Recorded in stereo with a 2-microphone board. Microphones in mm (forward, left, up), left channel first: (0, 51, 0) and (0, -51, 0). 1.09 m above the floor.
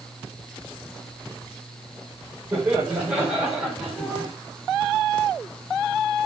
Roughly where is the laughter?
Centre.